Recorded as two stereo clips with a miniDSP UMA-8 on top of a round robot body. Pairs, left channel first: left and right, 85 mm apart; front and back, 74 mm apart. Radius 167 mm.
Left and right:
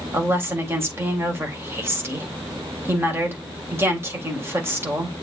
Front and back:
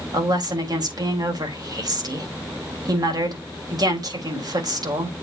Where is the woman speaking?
150° right, 3.5 m.